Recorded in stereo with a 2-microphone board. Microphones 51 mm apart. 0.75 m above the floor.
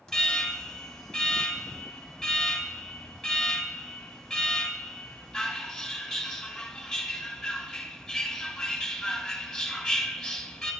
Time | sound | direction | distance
0.1 | an alarm | 10° left (ahead or behind) | 3 m